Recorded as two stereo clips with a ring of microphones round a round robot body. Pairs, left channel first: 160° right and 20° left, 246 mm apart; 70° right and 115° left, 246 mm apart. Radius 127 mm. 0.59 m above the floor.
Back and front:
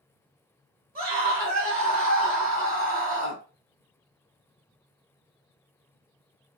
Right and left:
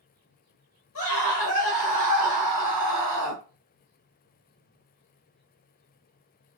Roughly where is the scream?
Ahead right.